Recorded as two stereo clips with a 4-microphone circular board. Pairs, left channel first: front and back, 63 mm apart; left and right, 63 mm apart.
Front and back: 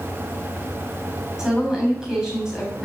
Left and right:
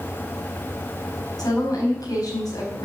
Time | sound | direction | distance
1.4 | a woman speaking | 100° left | 5.5 m